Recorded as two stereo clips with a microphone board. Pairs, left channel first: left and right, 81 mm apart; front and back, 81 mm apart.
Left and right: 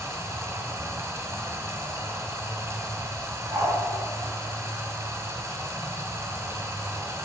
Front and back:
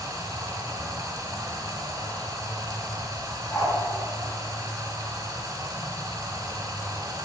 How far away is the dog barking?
About 5.5 m.